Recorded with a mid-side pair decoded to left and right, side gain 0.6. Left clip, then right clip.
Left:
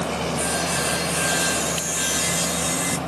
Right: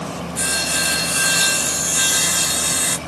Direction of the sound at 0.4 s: 50° right.